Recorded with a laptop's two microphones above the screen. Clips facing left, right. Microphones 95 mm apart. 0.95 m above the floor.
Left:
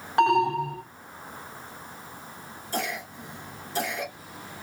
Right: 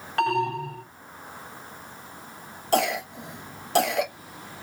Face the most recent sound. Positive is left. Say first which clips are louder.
# right 8 dB
turn(degrees=-75)  # may be behind; listen again after turning